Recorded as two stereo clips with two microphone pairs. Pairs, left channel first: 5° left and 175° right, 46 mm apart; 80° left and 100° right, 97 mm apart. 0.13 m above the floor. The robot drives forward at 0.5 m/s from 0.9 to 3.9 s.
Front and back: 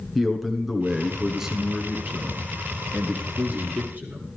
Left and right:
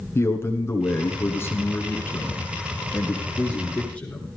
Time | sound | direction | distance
0.1 | a man speaking | 100° left | 1.8 m